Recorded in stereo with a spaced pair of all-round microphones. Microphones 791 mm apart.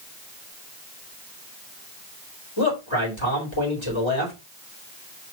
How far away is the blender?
I don't hear a blender.